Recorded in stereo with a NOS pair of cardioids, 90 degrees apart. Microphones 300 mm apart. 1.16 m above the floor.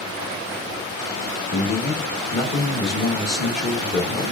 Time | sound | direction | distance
1.5 | a man speaking | 30° left | 1.0 m